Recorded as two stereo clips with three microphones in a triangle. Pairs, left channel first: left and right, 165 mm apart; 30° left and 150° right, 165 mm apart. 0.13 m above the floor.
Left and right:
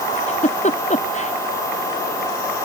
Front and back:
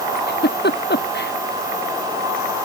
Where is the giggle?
45° left.